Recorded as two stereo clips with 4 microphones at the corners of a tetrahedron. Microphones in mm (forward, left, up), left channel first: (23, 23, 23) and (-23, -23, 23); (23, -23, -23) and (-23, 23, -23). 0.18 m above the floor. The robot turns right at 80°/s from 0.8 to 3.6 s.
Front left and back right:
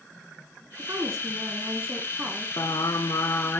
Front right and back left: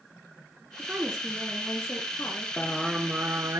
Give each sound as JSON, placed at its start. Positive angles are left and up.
{"t": 0.8, "sound": "a woman speaking", "azimuth_deg": -175, "distance_m": 2.0}
{"t": 2.6, "sound": "singing", "azimuth_deg": 20, "distance_m": 0.7}